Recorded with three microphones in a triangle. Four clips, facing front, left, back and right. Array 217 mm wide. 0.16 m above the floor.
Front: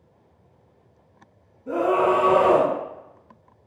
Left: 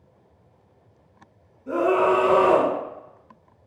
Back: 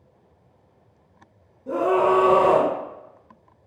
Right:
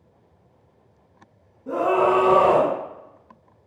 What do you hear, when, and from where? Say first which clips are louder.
1.7 s a scream: even, back 1 dB; 130° right, 1.6 m